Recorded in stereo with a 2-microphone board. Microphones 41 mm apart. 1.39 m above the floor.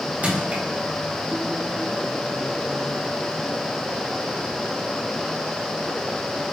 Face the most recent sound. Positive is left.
turn(degrees=-40)  # may be behind; listen again after turning